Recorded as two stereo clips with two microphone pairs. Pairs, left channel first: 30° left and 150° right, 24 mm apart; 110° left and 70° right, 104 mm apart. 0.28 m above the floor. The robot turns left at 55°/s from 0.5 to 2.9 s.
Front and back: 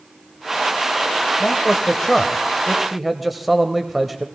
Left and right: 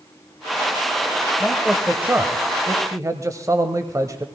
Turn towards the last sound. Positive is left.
turn(degrees=-60)